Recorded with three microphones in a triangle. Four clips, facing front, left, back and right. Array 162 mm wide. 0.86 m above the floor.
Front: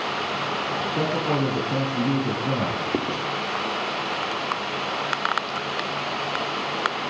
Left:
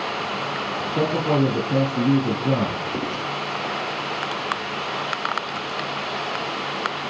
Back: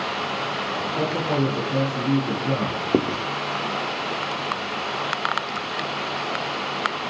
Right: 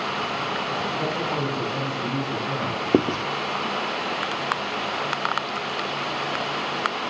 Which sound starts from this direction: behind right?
Writing, at 2.9 s.